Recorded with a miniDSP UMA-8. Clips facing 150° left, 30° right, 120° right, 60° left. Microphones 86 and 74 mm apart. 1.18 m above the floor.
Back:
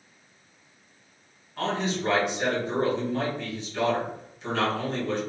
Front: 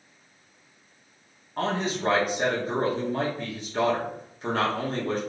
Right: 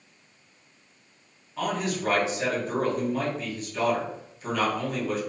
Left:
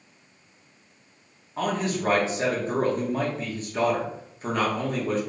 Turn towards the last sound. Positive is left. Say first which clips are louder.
# front 1 dB, left 2 dB
turn(degrees=15)